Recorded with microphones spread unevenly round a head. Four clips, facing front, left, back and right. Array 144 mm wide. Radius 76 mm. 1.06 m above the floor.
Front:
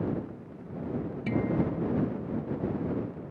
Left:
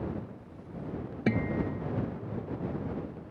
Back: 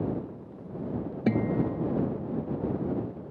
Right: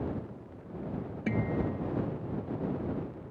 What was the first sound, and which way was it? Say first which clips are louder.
A guitar: left 2 dB, back 2 dB; 165° left.